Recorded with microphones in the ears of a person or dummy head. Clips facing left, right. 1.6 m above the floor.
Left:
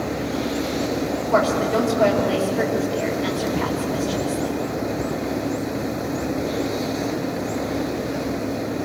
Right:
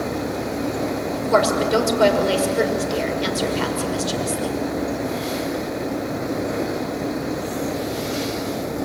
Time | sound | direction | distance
1.1 | a woman speaking | 55° right (ahead or behind) | 5.5 m